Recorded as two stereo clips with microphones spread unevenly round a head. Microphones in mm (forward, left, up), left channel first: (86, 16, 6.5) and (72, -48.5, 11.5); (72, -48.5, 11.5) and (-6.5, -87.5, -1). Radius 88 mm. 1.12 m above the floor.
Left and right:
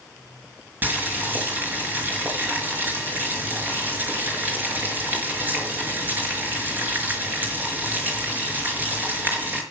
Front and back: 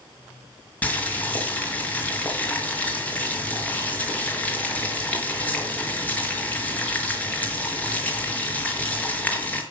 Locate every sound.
0.8 s boiling: 45° right, 5 m